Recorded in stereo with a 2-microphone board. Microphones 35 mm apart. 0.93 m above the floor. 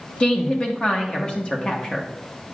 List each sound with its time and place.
0.2 s a woman speaking: 40° left (ahead or behind), 0.9 m